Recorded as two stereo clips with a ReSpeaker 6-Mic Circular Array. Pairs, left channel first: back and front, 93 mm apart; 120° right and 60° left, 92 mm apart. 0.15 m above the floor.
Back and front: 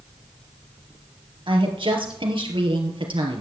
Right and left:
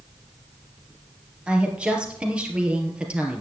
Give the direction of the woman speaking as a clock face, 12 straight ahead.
1 o'clock.